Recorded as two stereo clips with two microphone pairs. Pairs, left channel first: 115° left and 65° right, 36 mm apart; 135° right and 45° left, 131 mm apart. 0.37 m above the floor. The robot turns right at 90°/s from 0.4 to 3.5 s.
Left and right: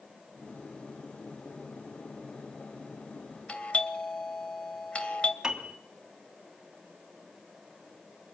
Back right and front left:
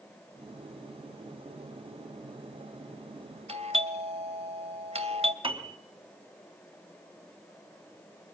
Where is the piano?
5° left, 3 m.